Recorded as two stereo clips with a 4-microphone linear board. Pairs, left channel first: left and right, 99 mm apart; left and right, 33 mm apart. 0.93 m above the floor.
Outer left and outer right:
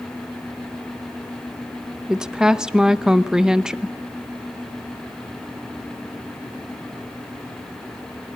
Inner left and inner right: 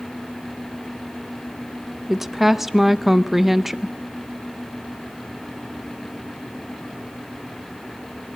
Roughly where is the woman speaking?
Centre.